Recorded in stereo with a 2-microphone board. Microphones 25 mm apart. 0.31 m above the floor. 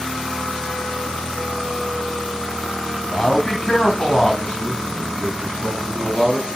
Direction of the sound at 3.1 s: 25° left (ahead or behind).